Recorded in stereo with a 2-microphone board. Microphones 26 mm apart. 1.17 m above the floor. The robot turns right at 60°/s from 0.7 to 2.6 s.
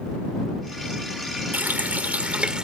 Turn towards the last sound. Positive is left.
turn(degrees=-30)